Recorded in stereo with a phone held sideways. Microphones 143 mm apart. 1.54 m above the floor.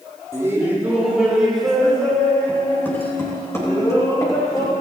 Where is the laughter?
20° right (ahead or behind), 4 m; by 4.8 s 25° left (ahead or behind), 8 m.